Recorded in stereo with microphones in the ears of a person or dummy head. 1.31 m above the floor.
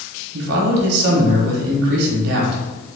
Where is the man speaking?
60° right (ahead or behind), 0.8 m.